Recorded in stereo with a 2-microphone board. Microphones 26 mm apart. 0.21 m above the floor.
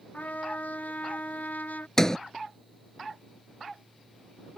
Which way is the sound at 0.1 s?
80° left.